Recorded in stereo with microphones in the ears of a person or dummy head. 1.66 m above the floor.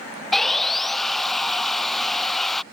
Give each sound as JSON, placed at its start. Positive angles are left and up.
{"t": 0.3, "sound": "sawing", "side_deg": 5}